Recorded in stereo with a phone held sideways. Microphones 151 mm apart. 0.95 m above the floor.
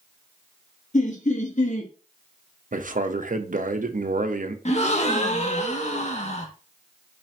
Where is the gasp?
50° left (ahead or behind), 0.7 m.